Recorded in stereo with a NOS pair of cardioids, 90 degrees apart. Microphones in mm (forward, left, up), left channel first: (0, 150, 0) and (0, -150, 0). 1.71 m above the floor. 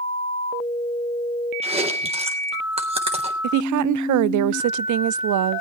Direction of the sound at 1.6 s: 20° right.